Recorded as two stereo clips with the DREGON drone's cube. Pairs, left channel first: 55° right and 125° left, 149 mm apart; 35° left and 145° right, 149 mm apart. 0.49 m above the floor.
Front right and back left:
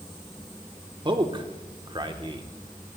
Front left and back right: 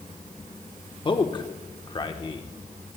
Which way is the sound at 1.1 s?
80° left.